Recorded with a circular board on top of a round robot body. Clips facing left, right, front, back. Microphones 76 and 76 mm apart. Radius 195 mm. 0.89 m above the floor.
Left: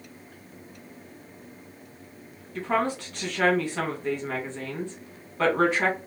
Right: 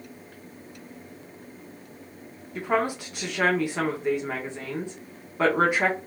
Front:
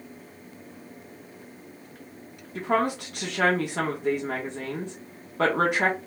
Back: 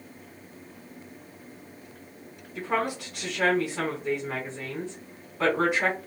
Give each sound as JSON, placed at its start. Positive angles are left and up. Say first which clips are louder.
{"t": 2.5, "sound": "a woman speaking", "louder": "right 1 dB, front 3 dB", "azimuth_deg": -15, "distance_m": 1.2}